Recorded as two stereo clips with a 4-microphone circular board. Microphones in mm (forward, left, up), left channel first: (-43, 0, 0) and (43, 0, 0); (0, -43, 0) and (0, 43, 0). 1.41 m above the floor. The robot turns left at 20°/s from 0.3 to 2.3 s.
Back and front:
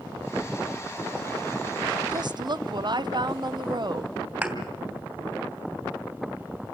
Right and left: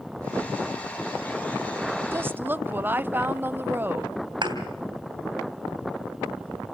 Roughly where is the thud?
Ahead left.